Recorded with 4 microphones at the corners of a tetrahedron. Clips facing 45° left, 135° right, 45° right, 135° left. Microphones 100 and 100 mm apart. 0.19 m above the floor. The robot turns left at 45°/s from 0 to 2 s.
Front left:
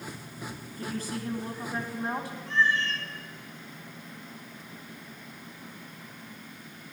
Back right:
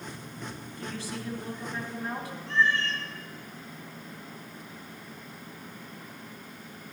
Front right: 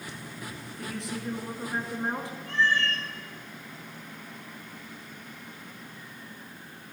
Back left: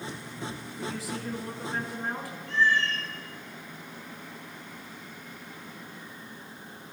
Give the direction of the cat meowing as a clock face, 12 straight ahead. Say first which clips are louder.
Even, back left 1 dB; 1 o'clock.